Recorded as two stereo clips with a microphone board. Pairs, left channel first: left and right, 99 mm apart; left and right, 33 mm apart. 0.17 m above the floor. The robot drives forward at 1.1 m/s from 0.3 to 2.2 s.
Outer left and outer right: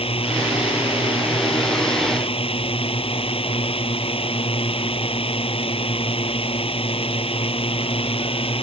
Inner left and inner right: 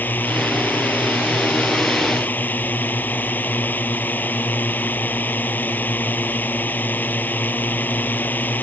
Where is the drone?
70° left (ahead or behind).